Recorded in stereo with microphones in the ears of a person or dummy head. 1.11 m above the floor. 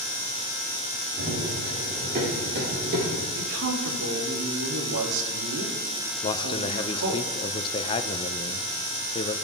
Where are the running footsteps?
40° right (ahead or behind), 9 m; by 3.2 s 50° right (ahead or behind), 8 m.